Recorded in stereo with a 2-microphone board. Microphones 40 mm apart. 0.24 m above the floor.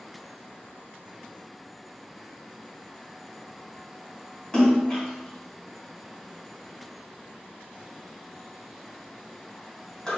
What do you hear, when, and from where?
4.5 s a splash: 20° left (ahead or behind), 2 m